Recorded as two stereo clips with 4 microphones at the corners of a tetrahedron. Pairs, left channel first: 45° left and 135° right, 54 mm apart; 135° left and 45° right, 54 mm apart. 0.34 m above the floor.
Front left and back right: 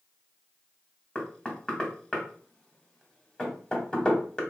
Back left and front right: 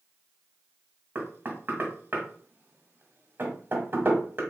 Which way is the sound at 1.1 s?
25° right.